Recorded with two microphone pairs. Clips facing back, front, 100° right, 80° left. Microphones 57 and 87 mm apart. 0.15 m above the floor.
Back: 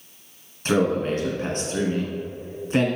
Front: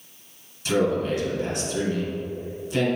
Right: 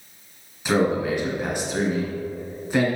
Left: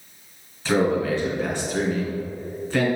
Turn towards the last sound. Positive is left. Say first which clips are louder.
# back 1 dB, even
turn(degrees=-165)